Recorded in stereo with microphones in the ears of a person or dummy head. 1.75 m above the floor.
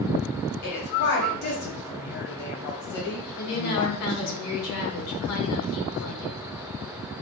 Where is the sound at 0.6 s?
60° left (ahead or behind), 0.8 m.